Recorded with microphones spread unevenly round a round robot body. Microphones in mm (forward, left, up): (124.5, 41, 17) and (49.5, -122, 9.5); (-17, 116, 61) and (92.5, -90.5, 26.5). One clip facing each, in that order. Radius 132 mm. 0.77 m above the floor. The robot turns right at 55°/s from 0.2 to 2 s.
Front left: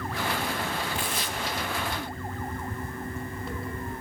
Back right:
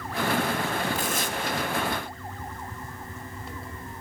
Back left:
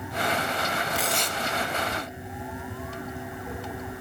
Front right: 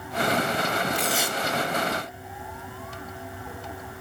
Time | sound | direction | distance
0.9 | tearing paper | 150° right | 1.1 m